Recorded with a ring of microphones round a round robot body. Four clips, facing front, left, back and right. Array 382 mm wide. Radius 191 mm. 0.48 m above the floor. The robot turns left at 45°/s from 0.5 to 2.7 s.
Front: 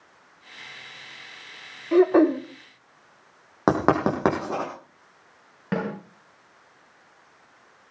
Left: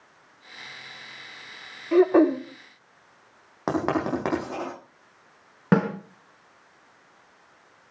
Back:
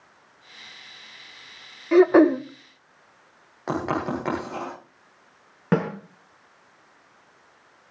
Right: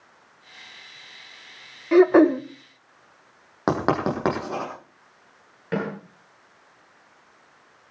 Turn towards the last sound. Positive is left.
turn(degrees=115)